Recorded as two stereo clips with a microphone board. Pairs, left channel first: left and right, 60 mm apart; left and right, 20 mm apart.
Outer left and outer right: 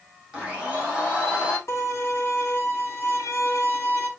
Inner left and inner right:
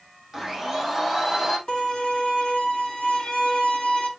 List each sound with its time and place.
0.3 s a blender: 15° right (ahead or behind), 6.5 m
1.7 s a violin: 55° left (ahead or behind), 3 m